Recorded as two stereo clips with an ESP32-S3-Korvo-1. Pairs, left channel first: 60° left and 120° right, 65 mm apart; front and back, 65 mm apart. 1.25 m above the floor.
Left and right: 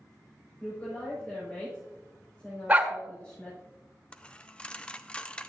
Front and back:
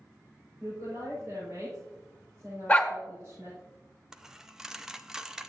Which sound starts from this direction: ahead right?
A dog barking, at 2.7 s.